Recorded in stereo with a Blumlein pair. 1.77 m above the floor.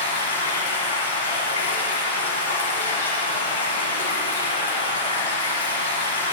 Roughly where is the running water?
Ahead left.